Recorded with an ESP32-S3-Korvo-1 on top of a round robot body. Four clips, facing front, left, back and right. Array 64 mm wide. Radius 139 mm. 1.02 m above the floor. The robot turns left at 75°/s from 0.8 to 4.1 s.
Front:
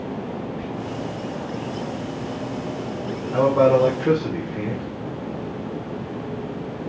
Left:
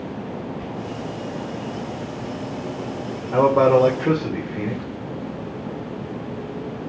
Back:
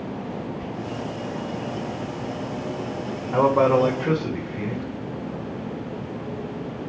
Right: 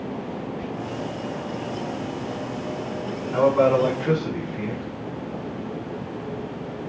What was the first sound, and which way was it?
Whispering, 5° right.